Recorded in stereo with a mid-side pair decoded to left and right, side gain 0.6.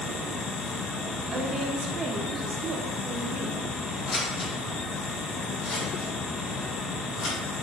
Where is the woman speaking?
30° right, 0.6 m.